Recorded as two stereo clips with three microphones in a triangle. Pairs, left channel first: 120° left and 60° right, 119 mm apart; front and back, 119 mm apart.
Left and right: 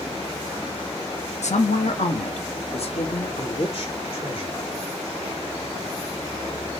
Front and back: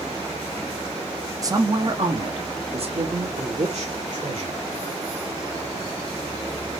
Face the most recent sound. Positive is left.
turn(degrees=160)